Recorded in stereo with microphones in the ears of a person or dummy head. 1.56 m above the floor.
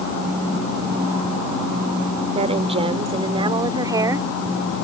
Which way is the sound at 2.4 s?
30° right (ahead or behind).